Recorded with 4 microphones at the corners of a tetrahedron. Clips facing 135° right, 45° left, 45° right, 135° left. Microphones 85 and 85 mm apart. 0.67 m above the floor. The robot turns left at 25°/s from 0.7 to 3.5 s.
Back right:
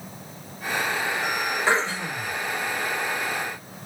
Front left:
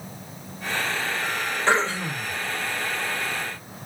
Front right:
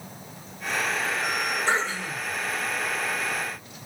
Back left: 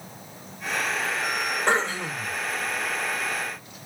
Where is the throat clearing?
140° left, 1.4 m; by 2.4 s 125° left, 1.4 m.